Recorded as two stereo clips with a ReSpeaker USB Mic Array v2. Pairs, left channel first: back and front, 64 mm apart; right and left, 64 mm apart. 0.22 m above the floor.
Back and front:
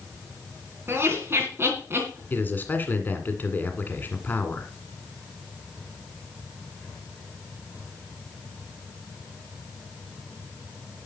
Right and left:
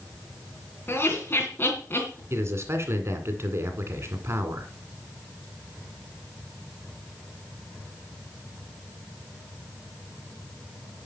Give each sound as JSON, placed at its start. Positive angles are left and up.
{"t": 0.9, "sound": "laughter", "azimuth_deg": -40, "distance_m": 2.5}
{"t": 2.3, "sound": "a man speaking", "azimuth_deg": 125, "distance_m": 2.0}